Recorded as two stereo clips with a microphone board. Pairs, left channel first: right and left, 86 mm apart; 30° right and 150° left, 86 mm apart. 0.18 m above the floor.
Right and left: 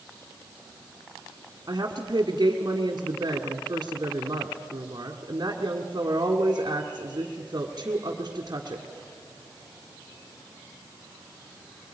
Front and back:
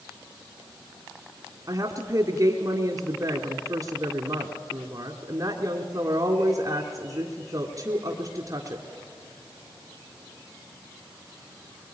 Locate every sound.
1.7 s a woman speaking: 120° left, 1.7 m